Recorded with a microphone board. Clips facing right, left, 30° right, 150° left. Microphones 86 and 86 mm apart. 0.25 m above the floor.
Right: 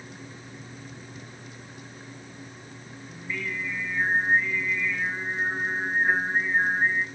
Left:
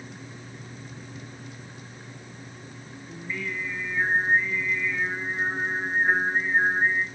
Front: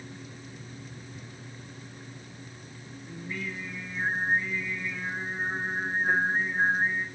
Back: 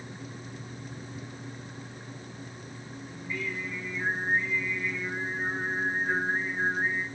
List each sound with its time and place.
3.1 s singing: 10° left, 5 m